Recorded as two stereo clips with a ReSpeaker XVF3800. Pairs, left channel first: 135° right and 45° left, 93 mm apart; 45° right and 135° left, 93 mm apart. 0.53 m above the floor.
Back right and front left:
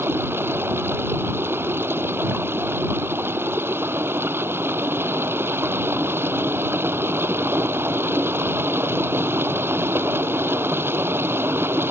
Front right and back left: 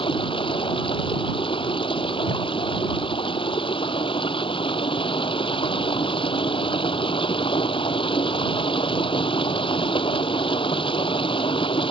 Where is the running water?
20° right.